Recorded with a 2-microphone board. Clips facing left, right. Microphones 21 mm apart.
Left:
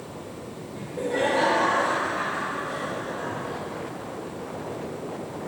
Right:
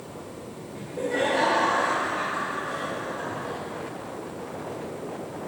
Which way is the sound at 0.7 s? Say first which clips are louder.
Even; 15° right (ahead or behind).